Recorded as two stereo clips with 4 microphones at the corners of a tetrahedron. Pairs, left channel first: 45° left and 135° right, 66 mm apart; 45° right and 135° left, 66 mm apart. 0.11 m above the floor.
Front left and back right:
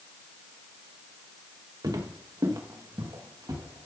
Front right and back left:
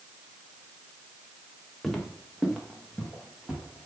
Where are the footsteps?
130° right, 2 m; by 3.9 s 140° right, 4.5 m.